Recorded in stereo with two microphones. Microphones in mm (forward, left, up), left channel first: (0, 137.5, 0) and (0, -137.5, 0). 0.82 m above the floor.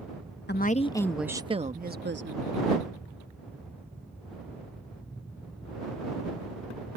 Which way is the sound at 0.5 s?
40° left (ahead or behind).